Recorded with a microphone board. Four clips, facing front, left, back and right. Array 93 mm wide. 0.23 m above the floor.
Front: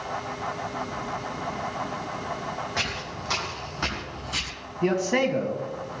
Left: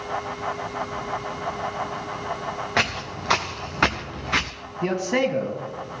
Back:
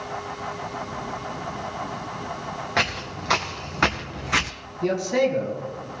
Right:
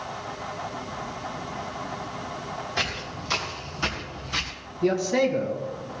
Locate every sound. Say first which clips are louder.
2.8 s footsteps: left 6 dB, back 5 dB; 115° left, 3 m; by 4.5 s 145° left, 0.7 m
4.8 s a man speaking: right 1 dB, back 1 dB; 50° left, 2 m